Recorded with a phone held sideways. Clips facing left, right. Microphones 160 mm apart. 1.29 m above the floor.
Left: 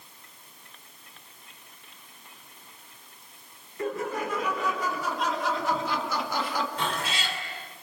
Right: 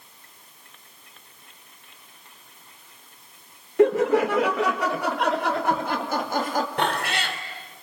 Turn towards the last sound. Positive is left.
turn(degrees=-65)  # may be behind; listen again after turning